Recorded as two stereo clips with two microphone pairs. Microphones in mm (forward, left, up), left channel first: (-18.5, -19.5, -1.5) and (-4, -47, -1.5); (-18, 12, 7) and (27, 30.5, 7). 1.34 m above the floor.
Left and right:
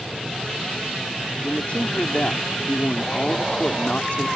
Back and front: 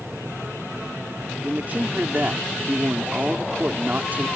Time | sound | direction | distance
1.4 | a man speaking | 75° left | ?